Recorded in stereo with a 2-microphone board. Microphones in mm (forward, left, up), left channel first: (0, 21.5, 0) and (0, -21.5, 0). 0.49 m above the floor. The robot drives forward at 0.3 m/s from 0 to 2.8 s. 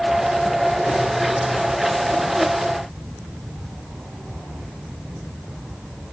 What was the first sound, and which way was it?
Only background noise.